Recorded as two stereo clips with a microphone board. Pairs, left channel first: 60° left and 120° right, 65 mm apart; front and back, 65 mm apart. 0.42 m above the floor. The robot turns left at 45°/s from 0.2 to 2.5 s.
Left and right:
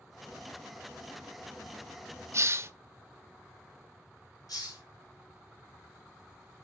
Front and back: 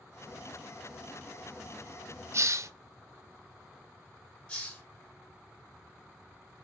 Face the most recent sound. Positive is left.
turn(degrees=75)